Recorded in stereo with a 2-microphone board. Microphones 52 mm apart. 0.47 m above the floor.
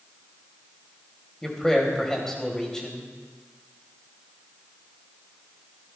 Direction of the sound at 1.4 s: 10° left (ahead or behind).